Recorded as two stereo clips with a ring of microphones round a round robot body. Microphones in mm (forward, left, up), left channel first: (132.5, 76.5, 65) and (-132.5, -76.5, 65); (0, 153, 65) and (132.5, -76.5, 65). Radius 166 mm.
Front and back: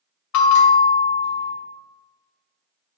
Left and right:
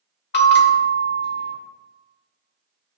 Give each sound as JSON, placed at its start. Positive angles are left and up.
{"t": 0.3, "sound": "a bell", "azimuth_deg": 65, "distance_m": 0.8}